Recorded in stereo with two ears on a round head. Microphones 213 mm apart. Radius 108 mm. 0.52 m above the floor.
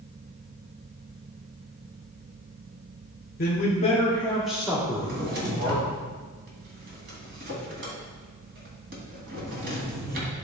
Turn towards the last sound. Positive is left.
turn(degrees=-45)  # may be behind; listen again after turning